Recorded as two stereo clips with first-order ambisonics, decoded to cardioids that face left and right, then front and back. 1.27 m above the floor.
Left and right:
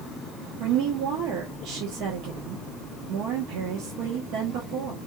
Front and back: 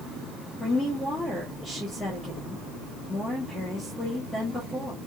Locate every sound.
0.6 s a woman speaking: 85° right, 1.1 m